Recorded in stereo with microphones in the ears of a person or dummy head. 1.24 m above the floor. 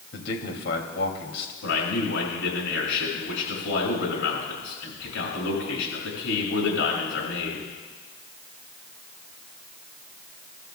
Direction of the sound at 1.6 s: 85° left.